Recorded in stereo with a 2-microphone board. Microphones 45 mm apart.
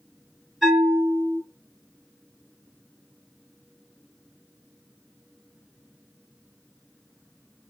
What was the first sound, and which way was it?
A bell, centre (ahead or behind).